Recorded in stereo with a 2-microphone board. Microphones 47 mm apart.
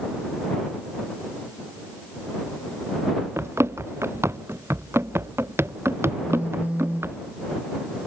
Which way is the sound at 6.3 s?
30° right (ahead or behind).